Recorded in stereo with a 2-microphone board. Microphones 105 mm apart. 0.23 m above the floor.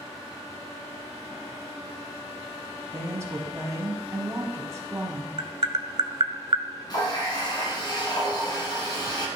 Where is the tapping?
55° right (ahead or behind), 0.6 m.